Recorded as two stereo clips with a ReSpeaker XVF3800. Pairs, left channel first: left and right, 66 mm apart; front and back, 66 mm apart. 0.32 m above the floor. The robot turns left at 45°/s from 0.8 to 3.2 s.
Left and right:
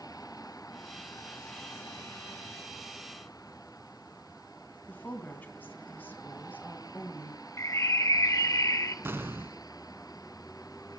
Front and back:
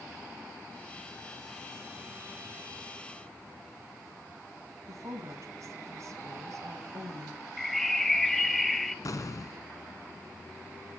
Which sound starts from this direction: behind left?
A woman speaking, at 4.9 s.